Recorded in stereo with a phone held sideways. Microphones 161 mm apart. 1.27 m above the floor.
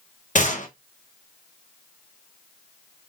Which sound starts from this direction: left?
A gunshot, at 0.3 s.